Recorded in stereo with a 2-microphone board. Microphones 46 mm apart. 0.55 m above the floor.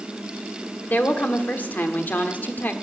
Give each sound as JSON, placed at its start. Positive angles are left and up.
{"t": 0.8, "sound": "a woman speaking", "side_deg": 40, "distance_m": 1.4}